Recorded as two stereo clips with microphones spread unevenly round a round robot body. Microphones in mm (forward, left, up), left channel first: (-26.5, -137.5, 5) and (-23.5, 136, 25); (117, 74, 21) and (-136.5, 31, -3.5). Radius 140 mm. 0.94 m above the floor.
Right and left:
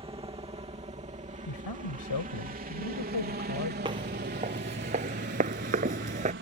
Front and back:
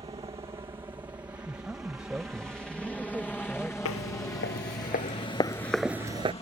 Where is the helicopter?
140° left; by 6.4 s 70° left.